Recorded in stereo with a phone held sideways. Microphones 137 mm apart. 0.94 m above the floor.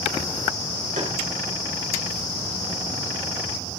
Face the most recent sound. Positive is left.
turn(degrees=-70)  # may be behind; listen again after turning